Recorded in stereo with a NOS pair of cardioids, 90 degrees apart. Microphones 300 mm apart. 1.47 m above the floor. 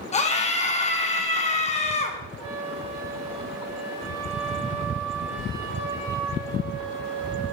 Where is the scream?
25° left, 1.7 m.